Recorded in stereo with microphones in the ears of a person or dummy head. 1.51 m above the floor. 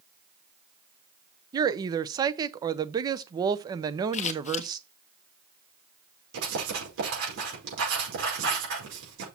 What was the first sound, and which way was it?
A woman speaking, 25° right (ahead or behind).